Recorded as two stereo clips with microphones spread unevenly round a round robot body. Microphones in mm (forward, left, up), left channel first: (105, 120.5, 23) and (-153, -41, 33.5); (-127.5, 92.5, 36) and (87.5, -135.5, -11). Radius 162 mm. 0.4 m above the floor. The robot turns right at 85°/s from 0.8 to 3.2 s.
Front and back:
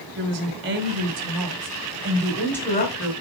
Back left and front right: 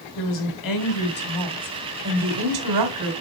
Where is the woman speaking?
160° left, 2 m; by 3.1 s 5° right, 2 m.